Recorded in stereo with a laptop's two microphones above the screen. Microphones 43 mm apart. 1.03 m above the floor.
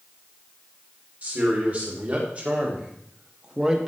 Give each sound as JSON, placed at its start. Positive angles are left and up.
{"t": 1.2, "sound": "a man speaking", "side_deg": -35, "distance_m": 3.0}